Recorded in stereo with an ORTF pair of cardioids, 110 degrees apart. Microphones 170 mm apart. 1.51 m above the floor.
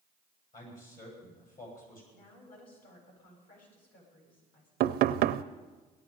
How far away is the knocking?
About 0.6 m.